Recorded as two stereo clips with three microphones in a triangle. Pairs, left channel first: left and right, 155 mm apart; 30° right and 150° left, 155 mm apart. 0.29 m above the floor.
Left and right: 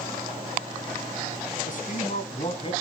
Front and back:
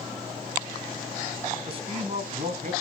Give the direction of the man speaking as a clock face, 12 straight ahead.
9 o'clock.